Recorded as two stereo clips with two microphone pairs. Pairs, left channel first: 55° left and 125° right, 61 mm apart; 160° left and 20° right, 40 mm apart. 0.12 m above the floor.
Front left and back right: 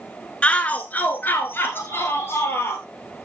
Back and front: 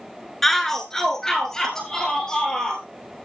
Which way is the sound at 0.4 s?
95° left.